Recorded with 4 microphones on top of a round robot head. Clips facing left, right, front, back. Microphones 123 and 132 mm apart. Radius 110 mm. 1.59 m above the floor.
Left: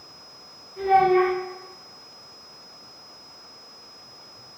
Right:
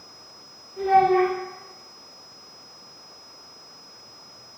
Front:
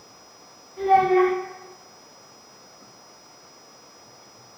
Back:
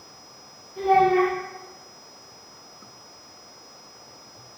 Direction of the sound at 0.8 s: 160° right.